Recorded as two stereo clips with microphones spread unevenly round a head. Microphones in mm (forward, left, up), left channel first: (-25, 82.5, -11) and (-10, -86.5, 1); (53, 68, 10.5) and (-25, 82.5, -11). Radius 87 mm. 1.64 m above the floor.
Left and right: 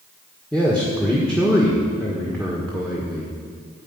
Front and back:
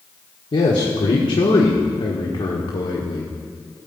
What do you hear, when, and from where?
0.5 s a man speaking: 10° left, 1.6 m